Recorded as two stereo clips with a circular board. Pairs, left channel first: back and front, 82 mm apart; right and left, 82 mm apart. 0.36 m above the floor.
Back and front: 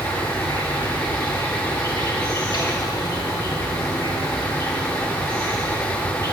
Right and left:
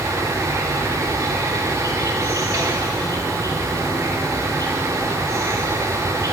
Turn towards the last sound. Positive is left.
turn(degrees=140)